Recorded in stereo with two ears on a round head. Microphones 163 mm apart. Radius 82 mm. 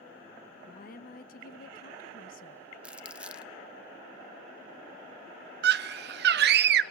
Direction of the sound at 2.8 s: 5° right (ahead or behind).